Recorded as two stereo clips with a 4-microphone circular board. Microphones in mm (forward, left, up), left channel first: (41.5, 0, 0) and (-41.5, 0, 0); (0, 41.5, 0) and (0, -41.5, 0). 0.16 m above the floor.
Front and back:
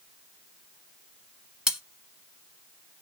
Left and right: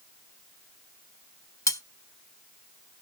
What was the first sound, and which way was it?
Cutlery clinking, 95° left.